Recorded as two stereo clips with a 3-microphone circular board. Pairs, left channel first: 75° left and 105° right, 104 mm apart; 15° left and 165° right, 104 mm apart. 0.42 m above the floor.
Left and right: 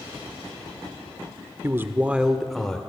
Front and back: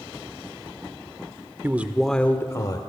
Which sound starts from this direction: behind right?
A man speaking, at 1.6 s.